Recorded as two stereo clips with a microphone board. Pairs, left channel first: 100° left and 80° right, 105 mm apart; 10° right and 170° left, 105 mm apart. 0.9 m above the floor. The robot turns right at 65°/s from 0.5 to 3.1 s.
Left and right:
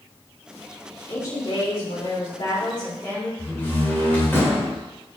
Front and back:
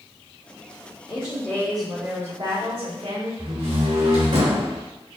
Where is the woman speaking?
30° left, 2.5 m; by 3.3 s 165° left, 2.5 m.